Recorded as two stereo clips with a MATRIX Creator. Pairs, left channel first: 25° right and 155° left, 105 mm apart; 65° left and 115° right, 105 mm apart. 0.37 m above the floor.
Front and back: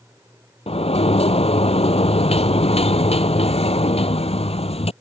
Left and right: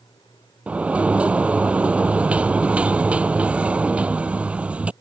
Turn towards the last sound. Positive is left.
turn(degrees=-35)